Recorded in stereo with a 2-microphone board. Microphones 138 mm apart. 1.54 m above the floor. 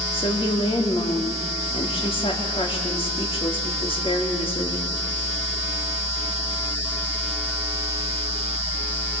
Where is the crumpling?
I don't hear crumpling.